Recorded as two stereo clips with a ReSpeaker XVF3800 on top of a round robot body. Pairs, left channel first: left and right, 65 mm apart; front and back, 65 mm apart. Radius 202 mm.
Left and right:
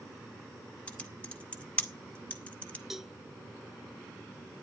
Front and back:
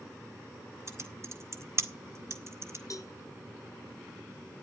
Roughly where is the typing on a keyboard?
Behind left.